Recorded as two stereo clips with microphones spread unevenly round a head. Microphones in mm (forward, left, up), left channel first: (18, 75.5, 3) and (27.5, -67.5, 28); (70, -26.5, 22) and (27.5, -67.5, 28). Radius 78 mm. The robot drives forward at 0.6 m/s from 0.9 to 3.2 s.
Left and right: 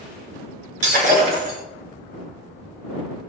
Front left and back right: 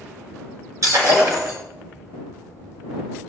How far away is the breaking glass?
About 8 m.